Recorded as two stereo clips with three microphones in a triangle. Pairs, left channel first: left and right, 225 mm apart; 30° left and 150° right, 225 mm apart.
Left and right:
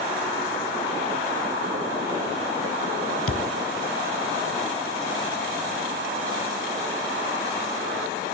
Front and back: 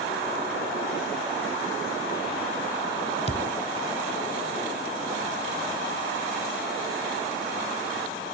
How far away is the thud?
About 0.8 m.